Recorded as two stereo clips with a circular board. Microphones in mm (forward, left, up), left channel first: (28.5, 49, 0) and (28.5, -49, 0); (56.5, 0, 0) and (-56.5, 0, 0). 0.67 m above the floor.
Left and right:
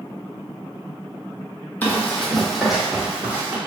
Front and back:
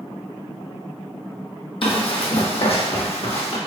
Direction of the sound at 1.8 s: 20° left.